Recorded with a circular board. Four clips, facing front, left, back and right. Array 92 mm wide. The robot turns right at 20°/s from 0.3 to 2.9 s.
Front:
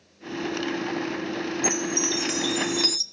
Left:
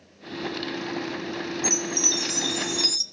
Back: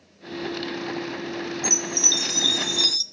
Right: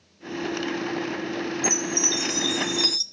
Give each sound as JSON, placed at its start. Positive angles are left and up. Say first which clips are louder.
{"t": 1.6, "sound": "a chime", "louder": "right 2 dB, front 3 dB", "azimuth_deg": -10, "distance_m": 0.8}